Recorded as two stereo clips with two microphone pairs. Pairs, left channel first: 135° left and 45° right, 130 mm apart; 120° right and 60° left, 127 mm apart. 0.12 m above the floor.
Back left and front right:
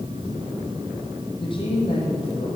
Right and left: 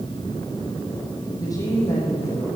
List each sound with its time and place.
1.4 s a woman speaking: straight behind, 4 m; by 2.5 s 175° left, 5 m